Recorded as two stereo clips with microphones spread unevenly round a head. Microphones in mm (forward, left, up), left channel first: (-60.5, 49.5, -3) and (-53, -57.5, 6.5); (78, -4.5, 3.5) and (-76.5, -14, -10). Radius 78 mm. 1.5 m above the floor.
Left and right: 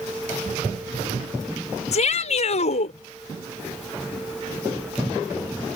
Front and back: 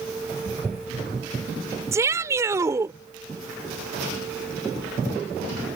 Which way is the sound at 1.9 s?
110° left.